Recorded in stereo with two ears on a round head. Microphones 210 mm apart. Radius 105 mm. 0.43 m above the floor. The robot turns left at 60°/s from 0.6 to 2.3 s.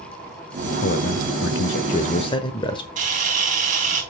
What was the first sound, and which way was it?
A man speaking, 115° left.